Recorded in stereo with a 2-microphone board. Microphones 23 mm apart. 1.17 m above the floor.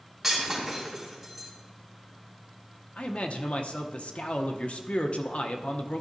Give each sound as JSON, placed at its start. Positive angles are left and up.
{"t": 0.2, "sound": "breaking glass", "side_deg": -5, "distance_m": 3.0}
{"t": 3.0, "sound": "a man speaking", "side_deg": 65, "distance_m": 0.7}